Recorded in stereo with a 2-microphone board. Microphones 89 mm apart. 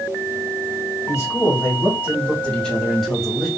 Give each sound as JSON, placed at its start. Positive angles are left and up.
{"t": 1.1, "sound": "a man speaking", "side_deg": 30, "distance_m": 2.5}